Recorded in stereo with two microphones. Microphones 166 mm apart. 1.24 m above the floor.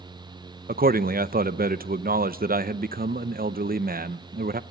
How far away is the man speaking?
About 0.7 m.